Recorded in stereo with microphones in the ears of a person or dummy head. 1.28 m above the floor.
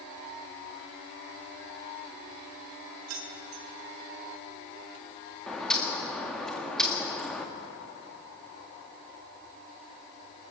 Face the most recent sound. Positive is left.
turn(degrees=5)  # may be behind; listen again after turning